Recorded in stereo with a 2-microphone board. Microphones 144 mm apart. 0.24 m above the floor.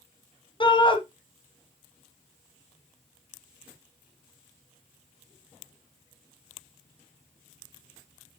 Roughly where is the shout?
Left.